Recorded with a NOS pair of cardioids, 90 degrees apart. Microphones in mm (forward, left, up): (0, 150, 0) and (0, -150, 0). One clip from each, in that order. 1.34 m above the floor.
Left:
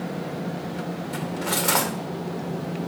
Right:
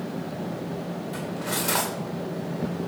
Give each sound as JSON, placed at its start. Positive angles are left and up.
{"t": 1.1, "sound": "cutlery clinking", "azimuth_deg": 35, "distance_m": 2.5}